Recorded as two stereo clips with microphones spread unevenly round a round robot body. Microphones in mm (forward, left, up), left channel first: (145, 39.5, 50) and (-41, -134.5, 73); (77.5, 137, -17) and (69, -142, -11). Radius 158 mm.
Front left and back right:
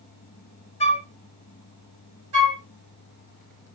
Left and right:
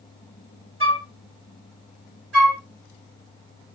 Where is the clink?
No clink in this recording.